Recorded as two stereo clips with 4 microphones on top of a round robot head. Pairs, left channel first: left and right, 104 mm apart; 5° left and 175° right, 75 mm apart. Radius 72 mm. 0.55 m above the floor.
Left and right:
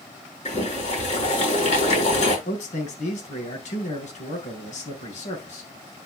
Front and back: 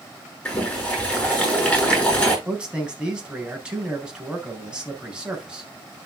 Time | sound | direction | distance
0.5 | boiling | 85° left | 7.5 m
2.5 | a man speaking | 110° left | 4 m